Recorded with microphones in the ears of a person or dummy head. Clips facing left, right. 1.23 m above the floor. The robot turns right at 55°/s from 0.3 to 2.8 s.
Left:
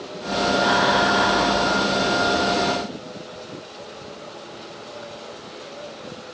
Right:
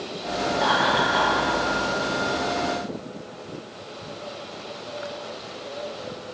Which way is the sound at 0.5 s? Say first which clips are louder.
Left 3 dB; 60° right (ahead or behind).